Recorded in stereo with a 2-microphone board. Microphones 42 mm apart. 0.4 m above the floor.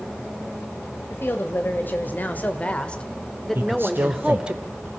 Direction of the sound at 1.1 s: 55° left (ahead or behind).